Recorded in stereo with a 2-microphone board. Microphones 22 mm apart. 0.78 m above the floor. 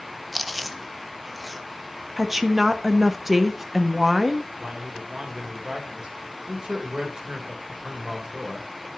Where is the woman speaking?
10° right (ahead or behind), 1.1 m.